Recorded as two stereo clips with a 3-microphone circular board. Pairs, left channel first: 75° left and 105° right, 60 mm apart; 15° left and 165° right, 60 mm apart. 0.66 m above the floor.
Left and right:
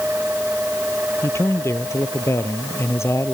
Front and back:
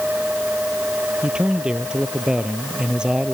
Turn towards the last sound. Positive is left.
turn(degrees=115)